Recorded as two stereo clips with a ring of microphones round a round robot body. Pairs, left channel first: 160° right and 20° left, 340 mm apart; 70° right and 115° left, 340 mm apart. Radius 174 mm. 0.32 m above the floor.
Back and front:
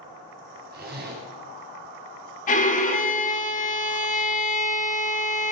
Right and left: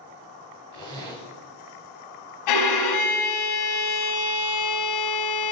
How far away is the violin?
About 1.0 m.